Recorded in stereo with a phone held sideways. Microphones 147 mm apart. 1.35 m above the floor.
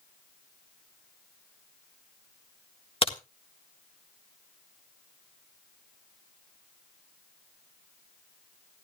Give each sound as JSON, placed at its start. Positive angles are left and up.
{"t": 3.0, "sound": "a crack", "side_deg": 40, "distance_m": 1.5}